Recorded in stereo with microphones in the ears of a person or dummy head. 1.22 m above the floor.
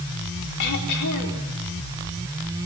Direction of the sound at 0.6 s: 70° left (ahead or behind).